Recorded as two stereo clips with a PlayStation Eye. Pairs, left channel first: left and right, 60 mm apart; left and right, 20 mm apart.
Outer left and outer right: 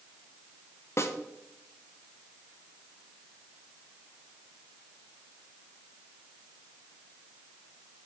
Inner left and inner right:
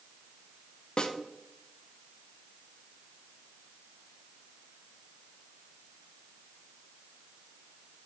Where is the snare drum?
45° left (ahead or behind), 0.7 m.